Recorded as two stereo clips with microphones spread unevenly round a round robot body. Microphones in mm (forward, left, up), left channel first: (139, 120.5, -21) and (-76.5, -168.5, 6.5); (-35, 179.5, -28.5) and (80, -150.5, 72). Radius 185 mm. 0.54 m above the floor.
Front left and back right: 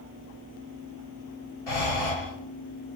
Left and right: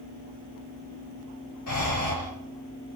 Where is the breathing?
70° left, 6 m.